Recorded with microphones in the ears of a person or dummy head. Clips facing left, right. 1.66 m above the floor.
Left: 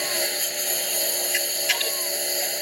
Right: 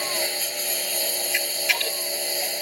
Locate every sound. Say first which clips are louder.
0.0 s a lawn mower: even; 5° left (ahead or behind)
1.3 s a camera shutter: even; 5° left (ahead or behind)